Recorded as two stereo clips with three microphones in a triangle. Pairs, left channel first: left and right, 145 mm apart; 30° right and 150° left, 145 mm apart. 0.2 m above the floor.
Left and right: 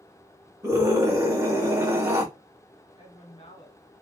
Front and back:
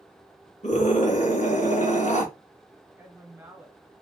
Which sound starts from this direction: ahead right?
A scream, at 0.6 s.